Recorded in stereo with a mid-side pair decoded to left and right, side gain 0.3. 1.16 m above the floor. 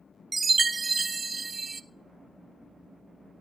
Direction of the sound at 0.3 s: 40° right.